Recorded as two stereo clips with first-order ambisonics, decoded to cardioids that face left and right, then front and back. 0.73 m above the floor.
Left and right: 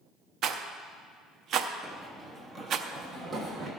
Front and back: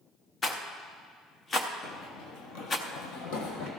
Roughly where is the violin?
No violin in this recording.